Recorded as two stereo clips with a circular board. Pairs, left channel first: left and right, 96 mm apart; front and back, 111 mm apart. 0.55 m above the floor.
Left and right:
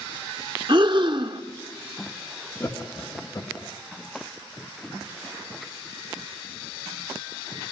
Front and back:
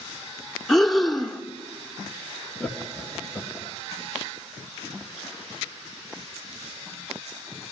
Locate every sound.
0.7 s breathing: 85° right, 1.2 m
2.6 s laughter: 80° left, 1.1 m